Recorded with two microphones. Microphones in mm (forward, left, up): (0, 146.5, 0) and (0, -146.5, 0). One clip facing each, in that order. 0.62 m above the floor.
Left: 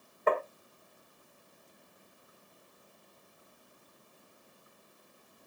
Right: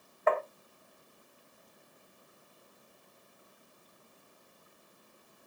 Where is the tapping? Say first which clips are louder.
Even; 40° left (ahead or behind), 1.5 m.